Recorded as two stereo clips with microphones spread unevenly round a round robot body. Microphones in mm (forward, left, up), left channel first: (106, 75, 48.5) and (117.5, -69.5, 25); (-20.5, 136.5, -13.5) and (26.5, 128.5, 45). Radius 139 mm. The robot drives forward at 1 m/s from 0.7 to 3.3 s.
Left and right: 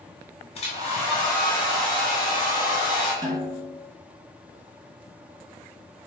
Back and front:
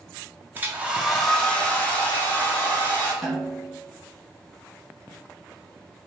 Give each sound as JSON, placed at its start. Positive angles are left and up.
{"t": 0.6, "sound": "a hair dryer", "azimuth_deg": 120, "distance_m": 0.8}
{"t": 3.2, "sound": "a snare drum", "azimuth_deg": -145, "distance_m": 1.1}